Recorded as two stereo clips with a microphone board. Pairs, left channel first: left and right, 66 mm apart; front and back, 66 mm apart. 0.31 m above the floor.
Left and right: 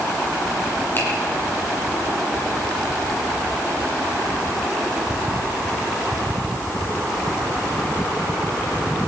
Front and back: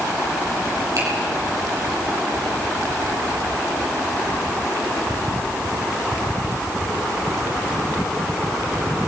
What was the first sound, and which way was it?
A finger snap, 145° left.